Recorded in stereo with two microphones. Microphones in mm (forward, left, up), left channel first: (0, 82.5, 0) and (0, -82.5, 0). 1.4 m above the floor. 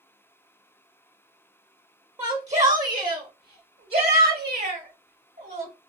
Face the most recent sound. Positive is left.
turn(degrees=-85)